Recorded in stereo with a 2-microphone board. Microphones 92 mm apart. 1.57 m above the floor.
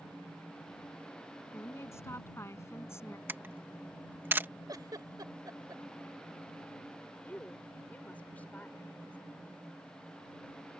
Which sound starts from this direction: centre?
A woman speaking, at 7.2 s.